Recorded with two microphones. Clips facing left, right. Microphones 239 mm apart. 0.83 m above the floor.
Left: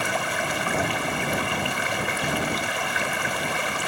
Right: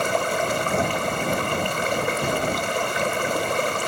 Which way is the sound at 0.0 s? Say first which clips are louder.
Right 5 dB; 55° right (ahead or behind).